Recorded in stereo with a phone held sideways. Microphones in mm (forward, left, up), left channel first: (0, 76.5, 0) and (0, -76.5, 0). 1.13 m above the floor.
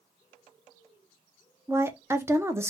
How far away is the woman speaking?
About 0.6 m.